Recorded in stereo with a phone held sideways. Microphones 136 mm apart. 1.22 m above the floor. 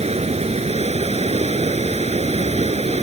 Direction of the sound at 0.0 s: 50° right (ahead or behind).